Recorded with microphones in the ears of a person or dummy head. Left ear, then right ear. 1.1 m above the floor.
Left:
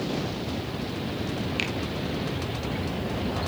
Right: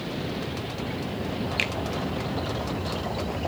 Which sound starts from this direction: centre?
A finger snap, at 1.6 s.